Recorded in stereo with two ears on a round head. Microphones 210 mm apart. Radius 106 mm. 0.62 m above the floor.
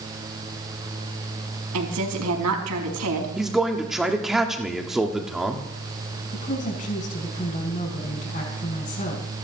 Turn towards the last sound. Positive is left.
turn(degrees=35)  # may be behind; listen again after turning